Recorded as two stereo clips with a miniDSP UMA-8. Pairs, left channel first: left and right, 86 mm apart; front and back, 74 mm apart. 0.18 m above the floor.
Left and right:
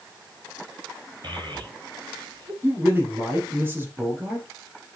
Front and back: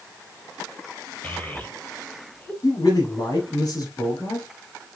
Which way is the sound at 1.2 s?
65° right.